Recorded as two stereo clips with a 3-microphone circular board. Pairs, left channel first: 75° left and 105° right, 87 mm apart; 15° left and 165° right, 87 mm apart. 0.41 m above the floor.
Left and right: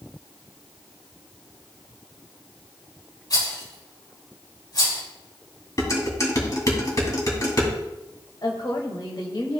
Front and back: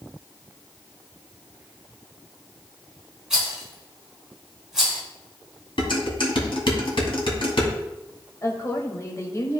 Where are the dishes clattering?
25° left, 2 m.